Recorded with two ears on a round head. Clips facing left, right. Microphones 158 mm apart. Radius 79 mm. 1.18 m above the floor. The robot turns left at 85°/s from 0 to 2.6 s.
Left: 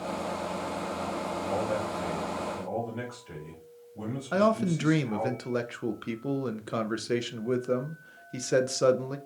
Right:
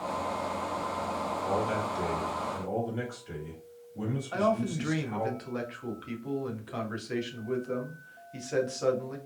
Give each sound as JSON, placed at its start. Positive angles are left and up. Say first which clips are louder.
{"t": 1.4, "sound": "a man speaking", "louder": "even", "azimuth_deg": -65, "distance_m": 1.6}
{"t": 4.3, "sound": "a man speaking", "louder": "left 4 dB", "side_deg": 60, "distance_m": 0.5}